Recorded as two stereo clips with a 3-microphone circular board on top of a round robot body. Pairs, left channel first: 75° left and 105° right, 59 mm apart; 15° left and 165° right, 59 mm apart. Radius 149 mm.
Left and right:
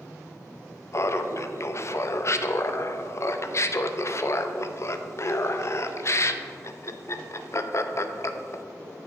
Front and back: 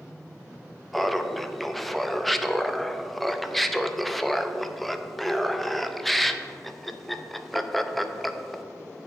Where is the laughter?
105° left, 0.8 m.